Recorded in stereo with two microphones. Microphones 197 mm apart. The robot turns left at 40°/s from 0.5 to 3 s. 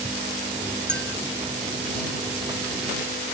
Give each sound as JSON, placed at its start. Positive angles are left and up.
{"t": 0.9, "sound": "a clink", "side_deg": -80}